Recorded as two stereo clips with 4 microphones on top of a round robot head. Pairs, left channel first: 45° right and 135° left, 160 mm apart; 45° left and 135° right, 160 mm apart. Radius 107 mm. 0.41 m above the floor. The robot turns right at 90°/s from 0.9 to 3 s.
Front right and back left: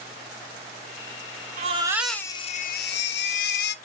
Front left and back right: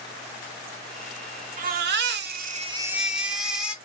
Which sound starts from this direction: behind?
A baby crying, at 1.6 s.